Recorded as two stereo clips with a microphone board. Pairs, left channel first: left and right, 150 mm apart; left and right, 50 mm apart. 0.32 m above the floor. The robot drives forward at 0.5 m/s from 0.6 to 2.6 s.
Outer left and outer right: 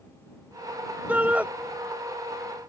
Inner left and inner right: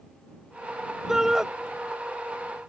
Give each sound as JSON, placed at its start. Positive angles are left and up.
{"t": 1.1, "sound": "a shout", "side_deg": -10}